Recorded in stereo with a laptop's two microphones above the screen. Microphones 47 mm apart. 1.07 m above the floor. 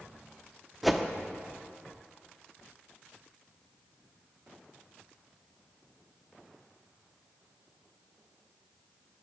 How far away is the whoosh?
About 0.6 m.